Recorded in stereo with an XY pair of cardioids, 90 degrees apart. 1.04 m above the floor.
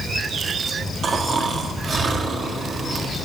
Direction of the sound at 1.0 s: 55° right.